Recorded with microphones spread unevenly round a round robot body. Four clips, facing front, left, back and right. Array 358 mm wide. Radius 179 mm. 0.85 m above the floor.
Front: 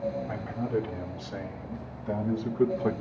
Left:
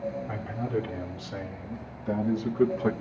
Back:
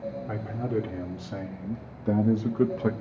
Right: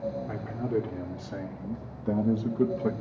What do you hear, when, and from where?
0.3 s a man speaking: 145° right, 2 m; by 2.9 s 175° right, 0.6 m